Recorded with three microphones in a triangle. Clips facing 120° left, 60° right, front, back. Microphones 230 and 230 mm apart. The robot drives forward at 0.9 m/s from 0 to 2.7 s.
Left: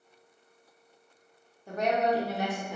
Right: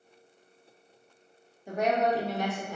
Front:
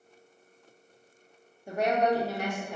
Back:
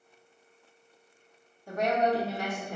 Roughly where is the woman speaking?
Ahead.